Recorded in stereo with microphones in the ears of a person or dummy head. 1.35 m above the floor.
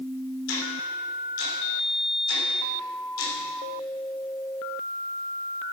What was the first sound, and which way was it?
Ticking, 80° left.